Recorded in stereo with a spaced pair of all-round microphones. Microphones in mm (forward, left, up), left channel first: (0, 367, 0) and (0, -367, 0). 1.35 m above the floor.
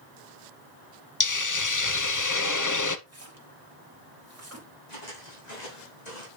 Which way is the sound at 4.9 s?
75° left (ahead or behind).